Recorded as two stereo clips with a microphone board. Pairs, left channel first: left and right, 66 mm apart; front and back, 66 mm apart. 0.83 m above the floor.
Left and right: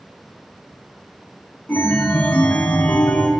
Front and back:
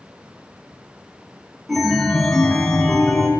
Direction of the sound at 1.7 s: 85° left.